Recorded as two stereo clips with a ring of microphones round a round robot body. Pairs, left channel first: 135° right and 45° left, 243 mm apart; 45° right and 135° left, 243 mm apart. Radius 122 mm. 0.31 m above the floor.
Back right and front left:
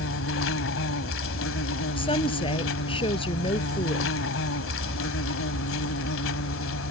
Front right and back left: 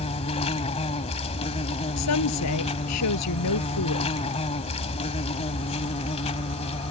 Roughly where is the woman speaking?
Ahead right.